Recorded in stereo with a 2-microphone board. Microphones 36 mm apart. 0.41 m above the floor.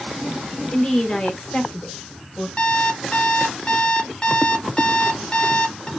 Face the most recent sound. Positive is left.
turn(degrees=30)  # may be behind; listen again after turning